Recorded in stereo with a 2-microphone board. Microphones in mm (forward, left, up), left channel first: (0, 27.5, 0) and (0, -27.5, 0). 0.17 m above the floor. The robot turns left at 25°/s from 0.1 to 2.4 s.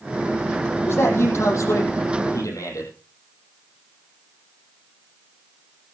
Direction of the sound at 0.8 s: 130° left.